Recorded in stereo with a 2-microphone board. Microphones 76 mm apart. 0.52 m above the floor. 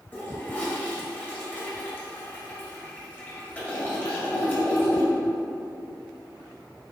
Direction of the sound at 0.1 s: 20° left (ahead or behind).